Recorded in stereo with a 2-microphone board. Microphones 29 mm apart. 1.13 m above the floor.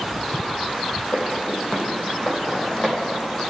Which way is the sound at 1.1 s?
60° left (ahead or behind).